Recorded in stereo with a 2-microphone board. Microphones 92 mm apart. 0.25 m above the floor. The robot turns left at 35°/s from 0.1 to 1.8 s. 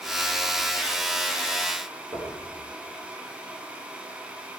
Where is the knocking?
50° right (ahead or behind), 5.5 m.